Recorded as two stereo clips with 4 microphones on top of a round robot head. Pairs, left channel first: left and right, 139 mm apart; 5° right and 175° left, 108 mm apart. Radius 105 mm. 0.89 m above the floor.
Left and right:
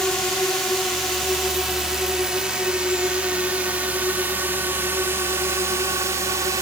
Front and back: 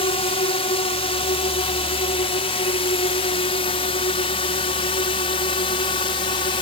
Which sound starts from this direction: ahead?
A drone, at 0.0 s.